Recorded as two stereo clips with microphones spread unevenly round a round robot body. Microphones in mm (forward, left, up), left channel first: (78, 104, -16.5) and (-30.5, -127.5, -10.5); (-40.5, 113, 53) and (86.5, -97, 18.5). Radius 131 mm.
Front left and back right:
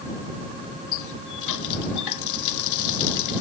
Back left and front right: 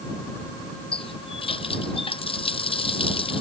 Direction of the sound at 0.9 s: 50° left.